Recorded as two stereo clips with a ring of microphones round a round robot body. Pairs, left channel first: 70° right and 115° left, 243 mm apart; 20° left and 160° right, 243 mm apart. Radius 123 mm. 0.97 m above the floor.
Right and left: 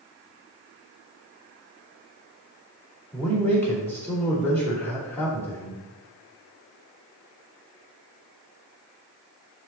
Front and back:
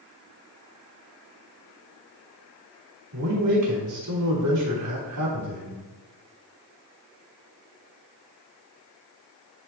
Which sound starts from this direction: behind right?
A man speaking, at 3.1 s.